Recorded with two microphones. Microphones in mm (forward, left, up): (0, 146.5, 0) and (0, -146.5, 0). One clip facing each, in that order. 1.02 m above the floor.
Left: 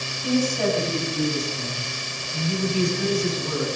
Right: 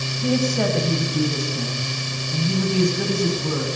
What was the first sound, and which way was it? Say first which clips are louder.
A woman speaking: right 1 dB; 65° right (ahead or behind).